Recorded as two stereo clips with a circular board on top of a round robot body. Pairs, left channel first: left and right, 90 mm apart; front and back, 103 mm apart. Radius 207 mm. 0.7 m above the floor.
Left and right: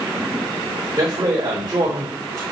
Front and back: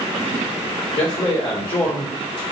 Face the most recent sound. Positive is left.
turn(degrees=-35)